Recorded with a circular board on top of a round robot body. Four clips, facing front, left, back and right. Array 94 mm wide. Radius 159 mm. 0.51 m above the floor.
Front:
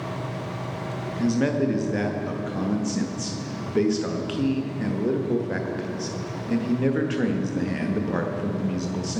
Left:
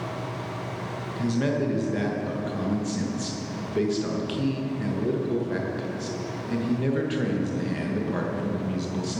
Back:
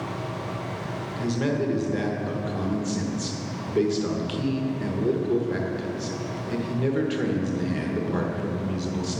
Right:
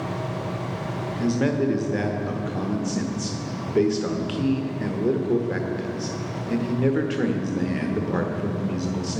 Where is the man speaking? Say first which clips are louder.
Right 3 dB, front 3 dB; 40° right, 1.1 m.